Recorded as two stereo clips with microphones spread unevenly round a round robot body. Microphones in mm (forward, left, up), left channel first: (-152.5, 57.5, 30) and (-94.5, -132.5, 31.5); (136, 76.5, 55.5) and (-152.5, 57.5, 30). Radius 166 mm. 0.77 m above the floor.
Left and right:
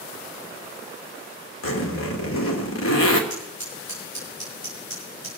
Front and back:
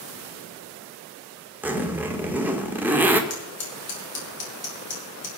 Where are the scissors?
55° left, 5 m.